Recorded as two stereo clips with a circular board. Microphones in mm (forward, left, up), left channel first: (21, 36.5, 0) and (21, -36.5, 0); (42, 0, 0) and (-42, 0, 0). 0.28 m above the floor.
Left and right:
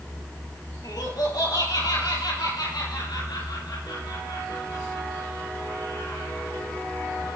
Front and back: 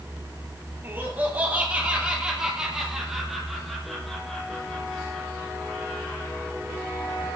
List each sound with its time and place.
0.8 s laughter: 115° left, 5 m; by 6.5 s 75° left, 9.5 m